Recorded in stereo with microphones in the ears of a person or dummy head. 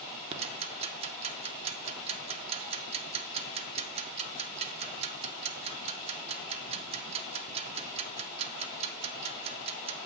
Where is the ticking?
30° right (ahead or behind), 0.8 m.